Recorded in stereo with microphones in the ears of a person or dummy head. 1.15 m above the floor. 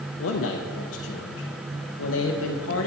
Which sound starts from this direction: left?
A man speaking, at 0.2 s.